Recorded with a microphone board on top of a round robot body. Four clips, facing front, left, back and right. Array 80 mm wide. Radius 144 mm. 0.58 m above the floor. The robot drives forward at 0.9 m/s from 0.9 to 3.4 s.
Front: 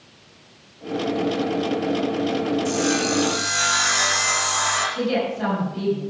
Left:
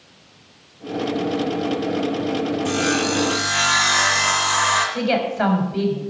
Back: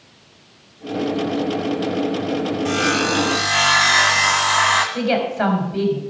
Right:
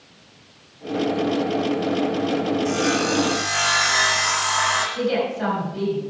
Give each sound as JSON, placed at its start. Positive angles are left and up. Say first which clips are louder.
{"t": 2.6, "sound": "sawing", "louder": "even, back 2 dB", "azimuth_deg": 170, "distance_m": 1.1}
{"t": 5.0, "sound": "a woman speaking", "louder": "left 2 dB, back 3 dB", "azimuth_deg": 140, "distance_m": 5.5}